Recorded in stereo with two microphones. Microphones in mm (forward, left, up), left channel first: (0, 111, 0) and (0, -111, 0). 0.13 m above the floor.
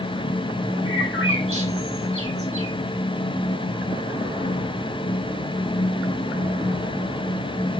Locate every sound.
0.8 s a bird: 70° right (ahead or behind), 3.5 m